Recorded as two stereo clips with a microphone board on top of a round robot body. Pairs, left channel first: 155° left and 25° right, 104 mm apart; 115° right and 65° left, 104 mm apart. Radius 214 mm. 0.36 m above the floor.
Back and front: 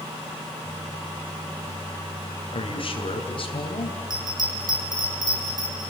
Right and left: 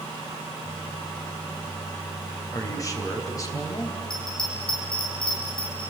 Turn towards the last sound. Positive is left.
turn(degrees=-70)